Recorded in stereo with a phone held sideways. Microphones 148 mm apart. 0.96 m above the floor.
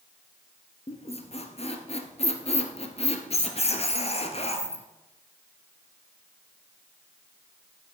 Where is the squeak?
45° left (ahead or behind), 1.3 m.